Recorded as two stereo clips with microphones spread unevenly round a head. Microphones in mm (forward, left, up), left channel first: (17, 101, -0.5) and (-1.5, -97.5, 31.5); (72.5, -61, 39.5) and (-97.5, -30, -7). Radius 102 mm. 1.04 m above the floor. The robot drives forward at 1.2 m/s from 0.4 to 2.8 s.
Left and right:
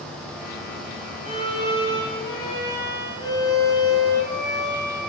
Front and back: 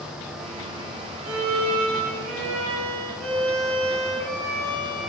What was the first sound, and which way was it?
A violin, 150° left.